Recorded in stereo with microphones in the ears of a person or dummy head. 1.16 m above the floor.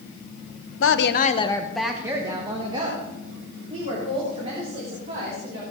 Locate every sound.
0.8 s a woman speaking: 60° left (ahead or behind), 0.9 m; by 5.6 s 40° right (ahead or behind), 5 m